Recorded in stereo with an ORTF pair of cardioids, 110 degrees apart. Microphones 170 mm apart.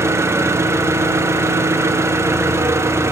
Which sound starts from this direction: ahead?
An engine running, at 0.0 s.